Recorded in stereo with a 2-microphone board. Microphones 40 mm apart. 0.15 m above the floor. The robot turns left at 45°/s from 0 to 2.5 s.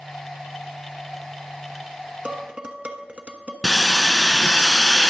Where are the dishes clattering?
35° right (ahead or behind), 1.0 m.